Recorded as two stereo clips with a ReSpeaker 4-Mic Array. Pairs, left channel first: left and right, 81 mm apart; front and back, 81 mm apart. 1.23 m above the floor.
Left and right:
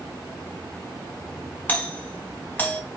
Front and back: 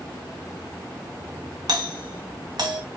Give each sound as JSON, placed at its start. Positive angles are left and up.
{"t": 1.7, "sound": "a doorbell", "azimuth_deg": 155, "distance_m": 1.4}